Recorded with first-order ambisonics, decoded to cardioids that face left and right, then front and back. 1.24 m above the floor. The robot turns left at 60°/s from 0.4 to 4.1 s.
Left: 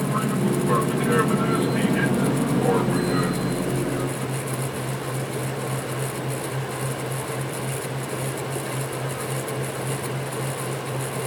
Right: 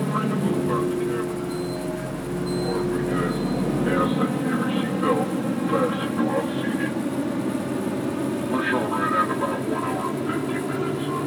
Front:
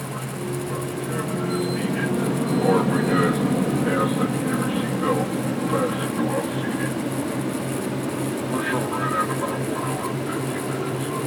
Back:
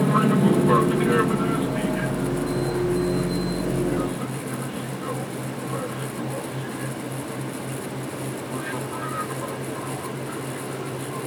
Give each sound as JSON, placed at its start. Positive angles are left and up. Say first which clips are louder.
{"t": 0.0, "sound": "an aircraft", "louder": "even, back 10 dB", "azimuth_deg": -175}